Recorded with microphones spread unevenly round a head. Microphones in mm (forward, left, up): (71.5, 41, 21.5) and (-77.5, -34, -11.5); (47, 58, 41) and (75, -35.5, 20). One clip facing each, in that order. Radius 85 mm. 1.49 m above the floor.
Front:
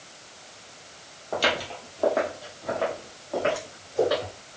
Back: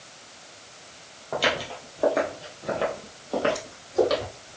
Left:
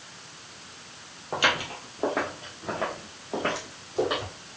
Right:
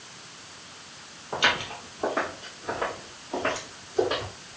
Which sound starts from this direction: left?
Footsteps, at 1.3 s.